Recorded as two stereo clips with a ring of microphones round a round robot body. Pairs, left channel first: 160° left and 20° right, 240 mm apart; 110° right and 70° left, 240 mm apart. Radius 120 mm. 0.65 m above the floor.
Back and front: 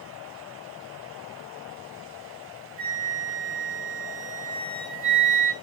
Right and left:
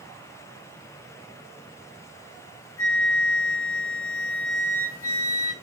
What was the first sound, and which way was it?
A flute, 80° right.